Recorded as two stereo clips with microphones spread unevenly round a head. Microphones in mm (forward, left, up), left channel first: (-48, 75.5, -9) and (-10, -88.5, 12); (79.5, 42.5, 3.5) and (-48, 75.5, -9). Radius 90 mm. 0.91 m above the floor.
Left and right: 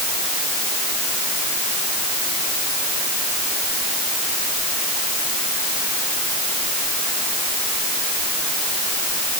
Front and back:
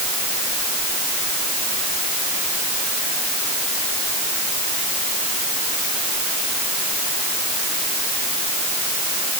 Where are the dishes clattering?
No dishes clattering in this recording.